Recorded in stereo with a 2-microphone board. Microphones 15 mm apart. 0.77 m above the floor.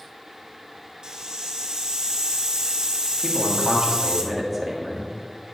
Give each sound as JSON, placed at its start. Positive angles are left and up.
{"t": 1.0, "sound": "a hiss", "side_deg": -60, "distance_m": 1.3}
{"t": 3.2, "sound": "a man speaking", "side_deg": -10, "distance_m": 1.4}